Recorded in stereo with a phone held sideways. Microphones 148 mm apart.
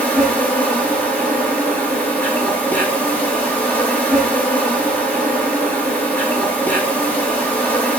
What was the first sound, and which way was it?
An insect, 10° left (ahead or behind).